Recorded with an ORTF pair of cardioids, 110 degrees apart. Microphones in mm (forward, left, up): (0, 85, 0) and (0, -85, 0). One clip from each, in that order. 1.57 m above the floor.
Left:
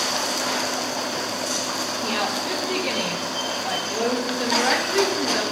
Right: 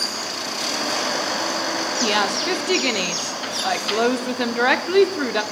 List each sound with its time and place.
2.0 s a woman speaking: 50° right, 0.9 m